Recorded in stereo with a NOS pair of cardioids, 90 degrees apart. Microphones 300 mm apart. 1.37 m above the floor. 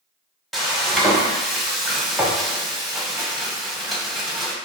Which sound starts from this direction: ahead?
Frying, at 0.5 s.